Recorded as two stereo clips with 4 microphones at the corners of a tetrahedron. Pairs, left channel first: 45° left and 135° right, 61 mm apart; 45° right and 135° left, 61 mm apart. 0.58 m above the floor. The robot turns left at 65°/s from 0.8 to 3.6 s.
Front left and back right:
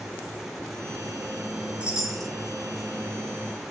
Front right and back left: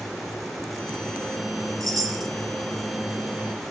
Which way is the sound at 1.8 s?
160° left.